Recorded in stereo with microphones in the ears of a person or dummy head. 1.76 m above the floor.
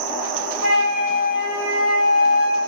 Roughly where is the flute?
Left.